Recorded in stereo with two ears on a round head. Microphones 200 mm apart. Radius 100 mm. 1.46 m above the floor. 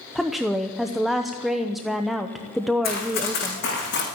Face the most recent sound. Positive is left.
turn(degrees=50)  # may be behind; listen again after turning